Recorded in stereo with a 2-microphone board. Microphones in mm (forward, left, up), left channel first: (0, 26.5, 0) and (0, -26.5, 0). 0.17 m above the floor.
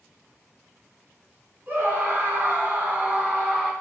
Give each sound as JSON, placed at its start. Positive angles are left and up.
{"t": 1.7, "sound": "a scream", "side_deg": -35, "distance_m": 1.8}